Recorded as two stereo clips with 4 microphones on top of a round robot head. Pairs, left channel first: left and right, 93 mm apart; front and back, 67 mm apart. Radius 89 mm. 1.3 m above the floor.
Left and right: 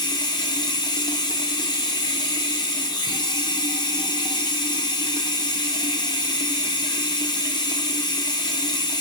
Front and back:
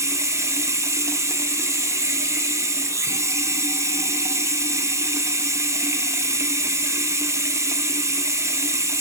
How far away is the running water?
About 0.8 m.